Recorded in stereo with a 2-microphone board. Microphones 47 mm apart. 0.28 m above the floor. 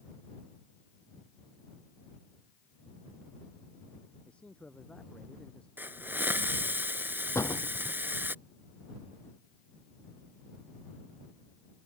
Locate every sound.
4.2 s a man speaking: 20° left (ahead or behind)
5.8 s a hiss: 45° right (ahead or behind)
7.3 s a door slam: 80° left